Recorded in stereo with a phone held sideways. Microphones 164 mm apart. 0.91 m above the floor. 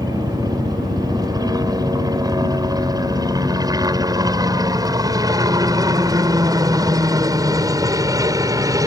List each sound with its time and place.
0.0 s a helicopter: 25° right (ahead or behind); by 8.9 s 20° right (ahead or behind)